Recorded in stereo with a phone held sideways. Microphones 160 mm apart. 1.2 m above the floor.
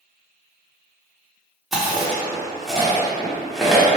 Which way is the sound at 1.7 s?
Centre (ahead or behind).